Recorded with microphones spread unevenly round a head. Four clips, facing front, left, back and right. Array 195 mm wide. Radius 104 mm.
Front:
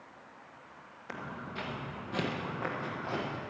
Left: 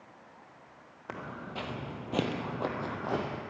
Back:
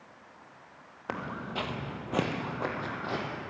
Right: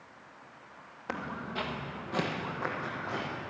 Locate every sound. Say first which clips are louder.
1.1 s footsteps: right 3 dB, back 6 dB; 170° right, 1.8 m; by 3.4 s 110° left, 2.0 m